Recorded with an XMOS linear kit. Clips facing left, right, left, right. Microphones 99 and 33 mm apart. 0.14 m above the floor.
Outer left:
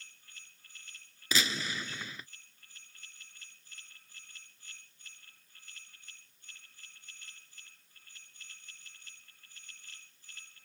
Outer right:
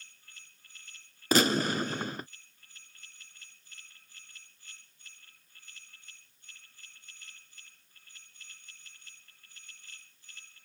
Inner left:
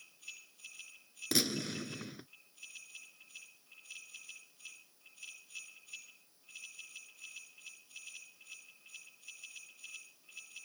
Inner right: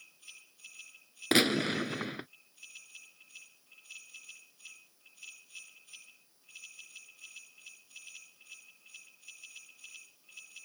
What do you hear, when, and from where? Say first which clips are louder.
1.3 s a gunshot: outer right 9 dB, inner right 8 dB; 50° right (ahead or behind)